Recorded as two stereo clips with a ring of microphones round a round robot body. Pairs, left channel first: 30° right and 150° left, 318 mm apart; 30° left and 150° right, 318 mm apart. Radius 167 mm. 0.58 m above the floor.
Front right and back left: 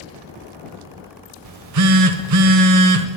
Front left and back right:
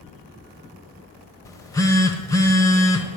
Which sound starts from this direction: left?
A phone buzzing, at 1.4 s.